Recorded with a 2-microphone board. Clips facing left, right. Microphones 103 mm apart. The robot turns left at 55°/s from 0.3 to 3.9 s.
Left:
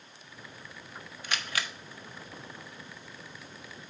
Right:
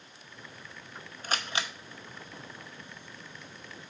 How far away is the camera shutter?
About 0.8 m.